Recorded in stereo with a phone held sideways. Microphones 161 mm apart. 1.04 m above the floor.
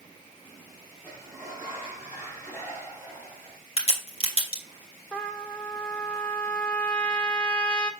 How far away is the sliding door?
About 5.5 m.